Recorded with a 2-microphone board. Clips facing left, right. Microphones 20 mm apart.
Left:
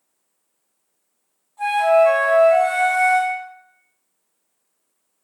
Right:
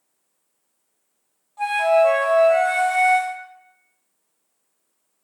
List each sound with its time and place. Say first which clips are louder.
1.6 s a flute: left 2 dB; 30° right (ahead or behind), 1.1 m